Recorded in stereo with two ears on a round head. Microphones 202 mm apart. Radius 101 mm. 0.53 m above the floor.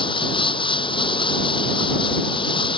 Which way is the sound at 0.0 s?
25° left (ahead or behind).